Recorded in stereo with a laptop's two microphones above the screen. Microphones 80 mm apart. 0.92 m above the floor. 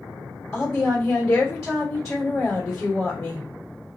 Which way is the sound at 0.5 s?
15° left (ahead or behind).